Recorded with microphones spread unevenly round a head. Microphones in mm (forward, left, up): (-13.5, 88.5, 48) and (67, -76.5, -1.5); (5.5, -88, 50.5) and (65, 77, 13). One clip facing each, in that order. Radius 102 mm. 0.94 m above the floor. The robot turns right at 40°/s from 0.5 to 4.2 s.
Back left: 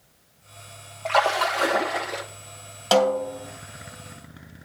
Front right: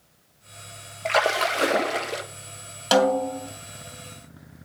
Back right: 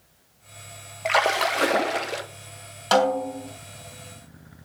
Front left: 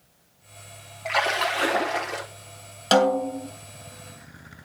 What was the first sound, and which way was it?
A splash, 100° right.